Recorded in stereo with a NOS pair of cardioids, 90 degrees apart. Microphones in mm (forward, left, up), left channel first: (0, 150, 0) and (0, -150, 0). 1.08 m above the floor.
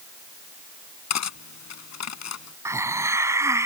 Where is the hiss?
10° right.